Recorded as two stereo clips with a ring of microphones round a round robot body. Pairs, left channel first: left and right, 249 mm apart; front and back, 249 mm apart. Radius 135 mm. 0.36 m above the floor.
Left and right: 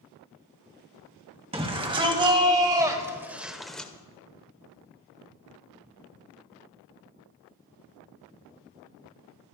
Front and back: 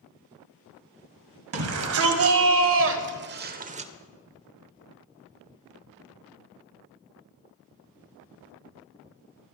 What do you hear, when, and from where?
1.5 s a shout: 160° right, 2.0 m; by 3.9 s 165° left, 0.9 m